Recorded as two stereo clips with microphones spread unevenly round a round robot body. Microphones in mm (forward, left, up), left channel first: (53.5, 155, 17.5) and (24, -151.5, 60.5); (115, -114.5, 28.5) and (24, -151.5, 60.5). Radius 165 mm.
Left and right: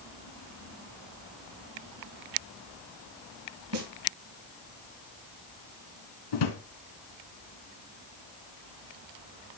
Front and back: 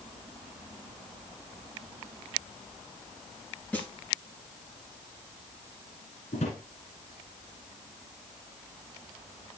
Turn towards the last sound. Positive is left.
turn(degrees=80)